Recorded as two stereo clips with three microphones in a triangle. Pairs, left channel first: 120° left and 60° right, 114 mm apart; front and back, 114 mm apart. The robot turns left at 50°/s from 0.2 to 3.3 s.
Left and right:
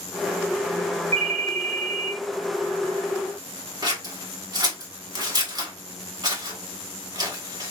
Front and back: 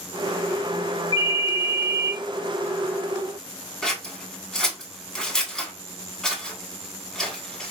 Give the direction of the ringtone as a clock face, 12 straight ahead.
2 o'clock.